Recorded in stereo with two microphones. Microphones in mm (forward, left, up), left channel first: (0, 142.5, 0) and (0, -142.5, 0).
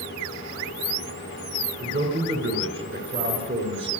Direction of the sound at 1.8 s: 45° right (ahead or behind).